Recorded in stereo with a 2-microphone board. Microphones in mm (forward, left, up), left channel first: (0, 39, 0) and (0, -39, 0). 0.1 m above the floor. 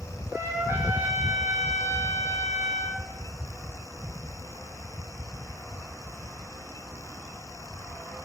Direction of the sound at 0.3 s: 35° right (ahead or behind).